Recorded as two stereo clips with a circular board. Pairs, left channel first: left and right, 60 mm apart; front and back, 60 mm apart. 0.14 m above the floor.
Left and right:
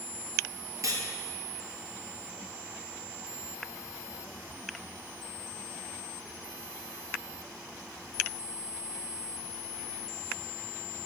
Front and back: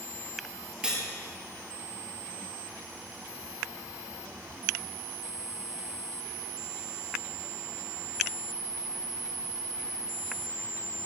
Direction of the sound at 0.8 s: 110° right.